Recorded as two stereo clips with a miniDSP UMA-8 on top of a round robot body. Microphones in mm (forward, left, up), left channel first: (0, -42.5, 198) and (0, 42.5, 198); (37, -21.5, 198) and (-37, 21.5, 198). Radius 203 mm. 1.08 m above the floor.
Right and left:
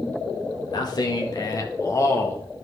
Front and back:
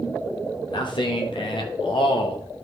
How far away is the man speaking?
About 2 m.